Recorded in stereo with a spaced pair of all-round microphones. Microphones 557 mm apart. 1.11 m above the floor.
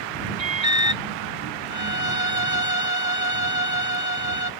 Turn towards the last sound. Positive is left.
turn(degrees=-30)  # may be behind; listen again after turning